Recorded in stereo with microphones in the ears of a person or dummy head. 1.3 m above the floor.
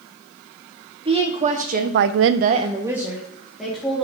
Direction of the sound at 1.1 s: 35° right (ahead or behind).